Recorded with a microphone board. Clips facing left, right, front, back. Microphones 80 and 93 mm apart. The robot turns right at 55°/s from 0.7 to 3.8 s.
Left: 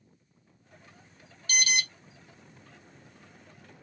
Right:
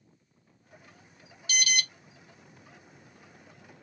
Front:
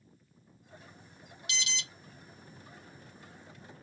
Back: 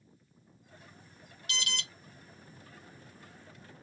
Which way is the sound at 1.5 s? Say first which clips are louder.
Left 1 dB, back 1 dB; 135° left.